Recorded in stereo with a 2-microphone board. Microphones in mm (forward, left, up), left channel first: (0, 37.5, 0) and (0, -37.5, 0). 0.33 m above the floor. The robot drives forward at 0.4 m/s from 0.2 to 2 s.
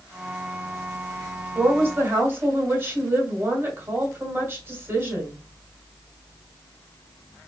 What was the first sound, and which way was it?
A woman speaking, 35° right (ahead or behind).